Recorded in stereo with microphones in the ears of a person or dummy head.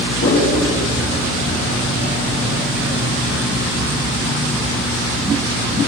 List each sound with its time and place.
0.2 s a whoosh: 55° left (ahead or behind), 6.5 m